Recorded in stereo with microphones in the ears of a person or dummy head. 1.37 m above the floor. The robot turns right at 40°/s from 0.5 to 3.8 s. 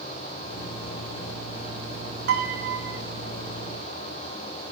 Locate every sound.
2.3 s a piano: 40° right (ahead or behind), 1.8 m; by 3.0 s 50° right (ahead or behind), 1.8 m